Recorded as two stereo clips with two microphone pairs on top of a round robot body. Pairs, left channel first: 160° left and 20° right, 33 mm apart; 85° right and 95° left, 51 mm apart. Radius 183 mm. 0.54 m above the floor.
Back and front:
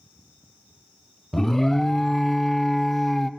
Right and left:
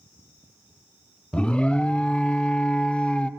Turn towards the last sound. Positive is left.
turn(degrees=-125)